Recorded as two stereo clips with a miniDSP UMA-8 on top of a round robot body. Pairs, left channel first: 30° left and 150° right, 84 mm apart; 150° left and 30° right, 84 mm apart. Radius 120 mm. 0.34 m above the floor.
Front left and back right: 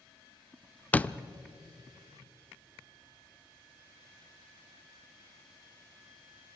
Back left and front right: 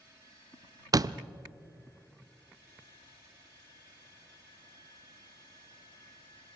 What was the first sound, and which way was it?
A door slam, 35° right.